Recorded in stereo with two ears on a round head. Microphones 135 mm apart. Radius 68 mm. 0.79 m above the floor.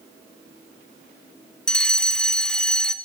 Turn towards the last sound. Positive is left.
turn(degrees=5)  # may be behind; listen again after turning